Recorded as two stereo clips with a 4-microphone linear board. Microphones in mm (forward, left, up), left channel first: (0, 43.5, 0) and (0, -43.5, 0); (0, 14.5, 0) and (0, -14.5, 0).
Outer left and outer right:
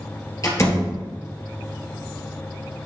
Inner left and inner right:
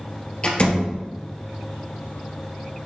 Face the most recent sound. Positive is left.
turn(degrees=40)  # may be behind; listen again after turning